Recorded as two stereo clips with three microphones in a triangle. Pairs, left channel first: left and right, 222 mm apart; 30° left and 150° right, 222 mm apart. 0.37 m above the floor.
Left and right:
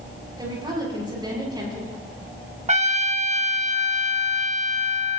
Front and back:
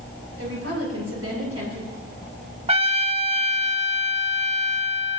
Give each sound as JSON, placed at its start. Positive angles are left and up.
{"t": 0.4, "sound": "a woman speaking", "azimuth_deg": -160, "distance_m": 7.0}
{"t": 2.7, "sound": "a trumpet", "azimuth_deg": -115, "distance_m": 0.7}